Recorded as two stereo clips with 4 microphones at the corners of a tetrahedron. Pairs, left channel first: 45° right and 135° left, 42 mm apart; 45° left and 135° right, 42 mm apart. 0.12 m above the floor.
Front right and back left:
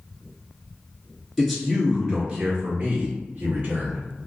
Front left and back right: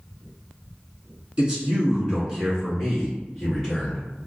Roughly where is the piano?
No piano in this recording.